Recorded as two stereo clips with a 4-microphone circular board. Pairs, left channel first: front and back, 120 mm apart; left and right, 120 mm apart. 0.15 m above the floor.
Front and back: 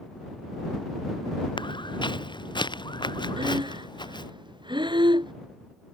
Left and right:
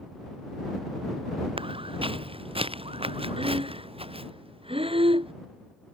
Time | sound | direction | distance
1.6 | footsteps | 50° right | ?
3.4 | breathing | 130° right | ?